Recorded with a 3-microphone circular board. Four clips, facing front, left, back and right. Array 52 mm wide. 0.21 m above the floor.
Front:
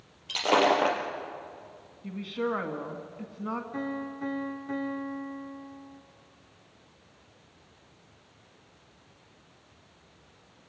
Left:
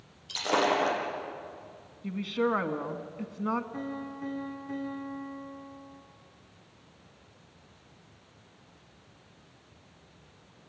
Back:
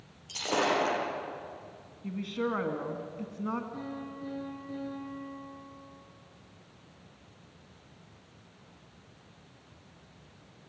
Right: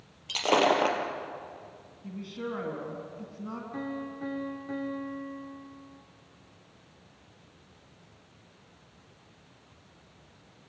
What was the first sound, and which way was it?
Breaking glass, 50° right.